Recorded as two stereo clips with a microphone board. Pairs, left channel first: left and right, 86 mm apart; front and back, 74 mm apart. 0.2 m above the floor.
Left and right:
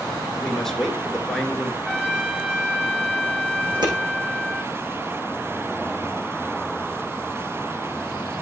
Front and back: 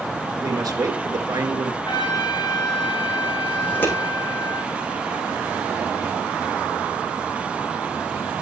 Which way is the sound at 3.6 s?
65° right.